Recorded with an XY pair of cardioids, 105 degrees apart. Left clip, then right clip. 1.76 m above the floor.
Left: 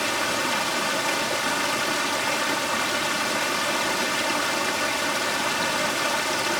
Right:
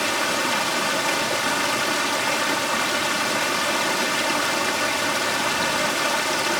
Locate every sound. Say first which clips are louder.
0.0 s running water: right 2 dB; 15° right